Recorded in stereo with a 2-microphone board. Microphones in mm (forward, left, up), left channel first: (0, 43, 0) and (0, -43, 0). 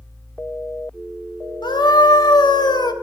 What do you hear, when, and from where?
1.6 s a scream: 60° left (ahead or behind), 1.5 m